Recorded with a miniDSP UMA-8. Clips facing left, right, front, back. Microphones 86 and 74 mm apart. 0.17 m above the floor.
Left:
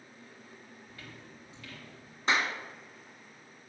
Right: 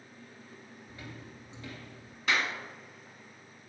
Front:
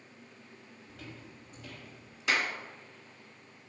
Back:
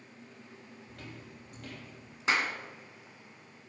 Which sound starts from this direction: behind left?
A clap, at 2.3 s.